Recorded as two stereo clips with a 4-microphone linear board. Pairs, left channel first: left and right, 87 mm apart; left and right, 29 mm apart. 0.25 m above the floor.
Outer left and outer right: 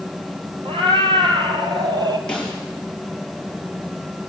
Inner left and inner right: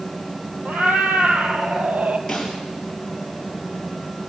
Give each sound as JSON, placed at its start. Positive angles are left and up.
{"t": 0.7, "sound": "a cat meowing", "side_deg": -75, "distance_m": 3.0}
{"t": 2.3, "sound": "a snare drum", "side_deg": 10, "distance_m": 6.0}